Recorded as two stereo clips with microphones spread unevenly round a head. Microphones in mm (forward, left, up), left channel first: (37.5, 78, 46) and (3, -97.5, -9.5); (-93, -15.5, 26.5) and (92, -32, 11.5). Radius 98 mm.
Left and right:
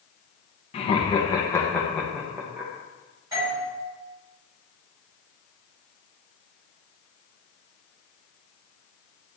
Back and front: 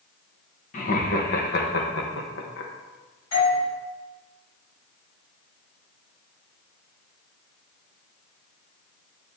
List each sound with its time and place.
0.7 s laughter: 125° left, 1.4 m; by 2.7 s 175° left, 1.4 m
3.3 s a doorbell: 175° right, 4.5 m